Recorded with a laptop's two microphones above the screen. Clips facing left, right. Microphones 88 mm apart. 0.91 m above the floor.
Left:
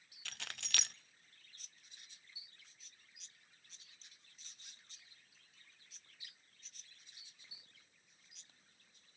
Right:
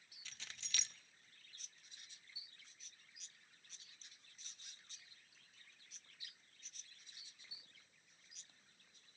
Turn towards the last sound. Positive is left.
turn(degrees=70)  # may be behind; listen again after turning